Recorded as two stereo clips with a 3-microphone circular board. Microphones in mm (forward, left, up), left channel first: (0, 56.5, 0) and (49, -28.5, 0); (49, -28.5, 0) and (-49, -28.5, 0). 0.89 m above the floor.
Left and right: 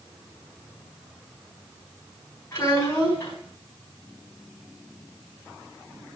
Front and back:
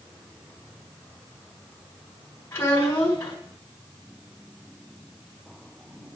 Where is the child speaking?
60° left, 4.5 m.